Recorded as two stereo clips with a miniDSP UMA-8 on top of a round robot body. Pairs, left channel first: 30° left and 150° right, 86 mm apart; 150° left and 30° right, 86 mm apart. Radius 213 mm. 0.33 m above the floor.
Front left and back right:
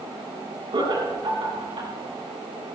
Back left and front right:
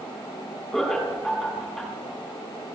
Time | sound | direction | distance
0.7 | laughter | 120° right | 6 m